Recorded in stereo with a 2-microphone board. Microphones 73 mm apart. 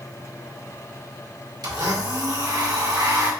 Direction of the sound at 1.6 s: 65° right (ahead or behind).